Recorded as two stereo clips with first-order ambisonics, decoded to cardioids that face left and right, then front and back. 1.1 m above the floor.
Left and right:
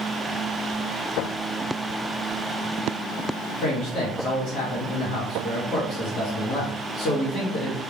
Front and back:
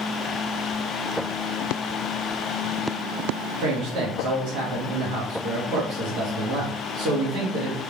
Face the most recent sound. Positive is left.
turn(degrees=135)